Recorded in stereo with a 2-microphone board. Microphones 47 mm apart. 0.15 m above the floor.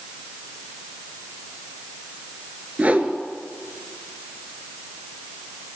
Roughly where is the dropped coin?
I don't hear a dropped coin.